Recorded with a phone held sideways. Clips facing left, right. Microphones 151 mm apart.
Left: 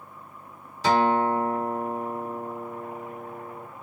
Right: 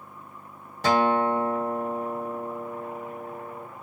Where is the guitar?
50° right (ahead or behind), 1.6 m.